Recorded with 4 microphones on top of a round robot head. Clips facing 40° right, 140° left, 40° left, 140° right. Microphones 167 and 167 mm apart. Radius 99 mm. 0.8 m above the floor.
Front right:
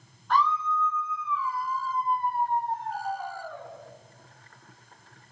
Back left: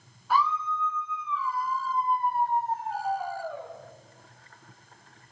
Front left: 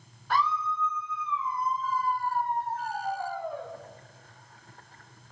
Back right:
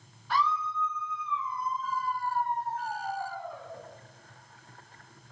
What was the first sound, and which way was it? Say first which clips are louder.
A scream: front right 1 dB, front left 1 dB; 60° left.